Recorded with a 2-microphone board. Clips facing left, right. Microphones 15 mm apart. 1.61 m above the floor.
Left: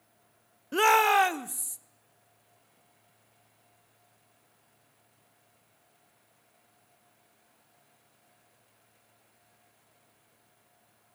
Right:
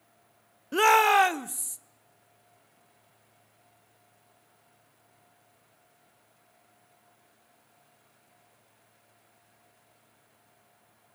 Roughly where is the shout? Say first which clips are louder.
Right 2 dB; centre.